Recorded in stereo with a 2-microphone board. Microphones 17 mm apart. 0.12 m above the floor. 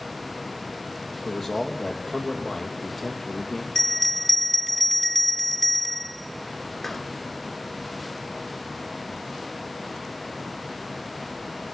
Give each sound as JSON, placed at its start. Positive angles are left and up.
{"t": 1.2, "sound": "a man speaking", "side_deg": 35, "distance_m": 4.5}
{"t": 3.8, "sound": "a bell", "side_deg": 20, "distance_m": 1.1}